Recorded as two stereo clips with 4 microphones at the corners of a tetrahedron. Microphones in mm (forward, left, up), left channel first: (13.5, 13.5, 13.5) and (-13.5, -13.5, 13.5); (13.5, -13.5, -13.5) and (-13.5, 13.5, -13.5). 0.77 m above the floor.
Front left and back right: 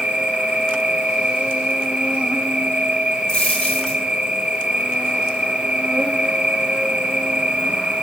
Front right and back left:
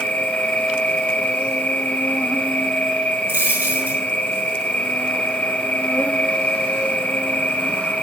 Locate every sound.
0.0 s an insect: 80° right, 1.0 m
3.3 s a dropped coin: 110° left, 4.5 m